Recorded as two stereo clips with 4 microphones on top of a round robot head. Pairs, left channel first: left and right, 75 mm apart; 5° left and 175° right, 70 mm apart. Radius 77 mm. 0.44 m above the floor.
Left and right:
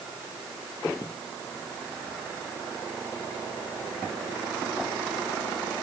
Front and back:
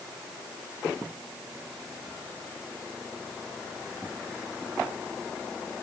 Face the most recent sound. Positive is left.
No sound to turn to.